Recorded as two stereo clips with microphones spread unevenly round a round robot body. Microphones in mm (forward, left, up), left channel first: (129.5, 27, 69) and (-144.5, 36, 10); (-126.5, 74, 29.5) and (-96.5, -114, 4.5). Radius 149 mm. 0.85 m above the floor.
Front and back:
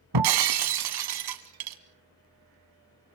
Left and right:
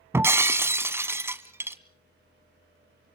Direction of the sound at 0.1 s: 160° right.